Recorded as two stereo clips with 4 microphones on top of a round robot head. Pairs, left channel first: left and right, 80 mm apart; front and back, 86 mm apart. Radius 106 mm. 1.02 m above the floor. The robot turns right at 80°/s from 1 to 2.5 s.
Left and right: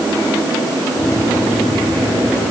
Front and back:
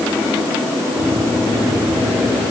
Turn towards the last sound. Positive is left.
No sound to turn to.